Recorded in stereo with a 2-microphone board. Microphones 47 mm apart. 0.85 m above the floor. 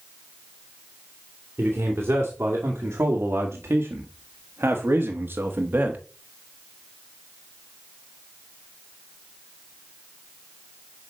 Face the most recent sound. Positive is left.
turn(degrees=-40)  # may be behind; listen again after turning